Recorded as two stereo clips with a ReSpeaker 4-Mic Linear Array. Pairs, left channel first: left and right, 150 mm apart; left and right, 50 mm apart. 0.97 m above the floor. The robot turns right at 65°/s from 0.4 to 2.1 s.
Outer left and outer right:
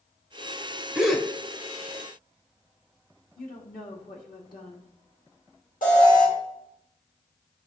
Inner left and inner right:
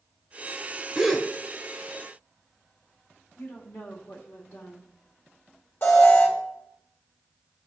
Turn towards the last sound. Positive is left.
turn(degrees=60)  # may be behind; listen again after turning